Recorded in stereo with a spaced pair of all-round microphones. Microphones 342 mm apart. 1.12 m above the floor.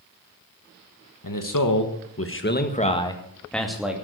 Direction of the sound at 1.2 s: 70° left (ahead or behind).